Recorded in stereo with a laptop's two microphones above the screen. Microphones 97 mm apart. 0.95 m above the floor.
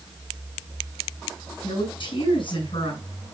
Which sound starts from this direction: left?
A woman speaking, at 1.6 s.